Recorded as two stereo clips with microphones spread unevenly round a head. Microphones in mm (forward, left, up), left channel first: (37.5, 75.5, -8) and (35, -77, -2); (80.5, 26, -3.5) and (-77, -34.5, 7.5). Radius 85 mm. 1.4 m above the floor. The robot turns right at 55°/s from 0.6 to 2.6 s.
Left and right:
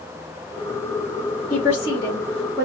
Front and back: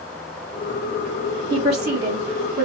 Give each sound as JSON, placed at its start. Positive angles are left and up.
{"t": 1.5, "sound": "a woman speaking", "azimuth_deg": 130, "distance_m": 1.8}